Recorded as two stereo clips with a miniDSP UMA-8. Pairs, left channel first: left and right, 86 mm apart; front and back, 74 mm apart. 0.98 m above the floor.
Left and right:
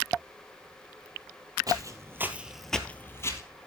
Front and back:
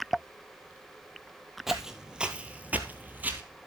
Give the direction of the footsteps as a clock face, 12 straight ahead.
3 o'clock.